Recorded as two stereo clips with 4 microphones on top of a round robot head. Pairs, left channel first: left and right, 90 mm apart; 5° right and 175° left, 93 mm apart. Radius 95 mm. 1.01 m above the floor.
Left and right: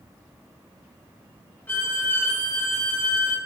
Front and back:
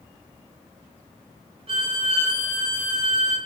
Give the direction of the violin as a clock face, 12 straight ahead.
7 o'clock.